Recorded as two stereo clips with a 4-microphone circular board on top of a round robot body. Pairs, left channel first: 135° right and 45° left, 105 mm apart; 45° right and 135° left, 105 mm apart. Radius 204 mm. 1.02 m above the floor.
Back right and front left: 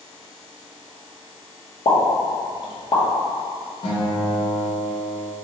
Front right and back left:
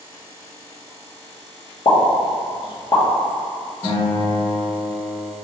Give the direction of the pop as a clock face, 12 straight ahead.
3 o'clock.